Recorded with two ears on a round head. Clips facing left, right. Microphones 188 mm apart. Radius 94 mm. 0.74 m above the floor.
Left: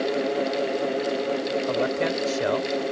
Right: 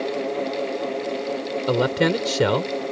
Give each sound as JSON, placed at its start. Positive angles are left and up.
{"t": 1.7, "sound": "a man speaking", "side_deg": -75}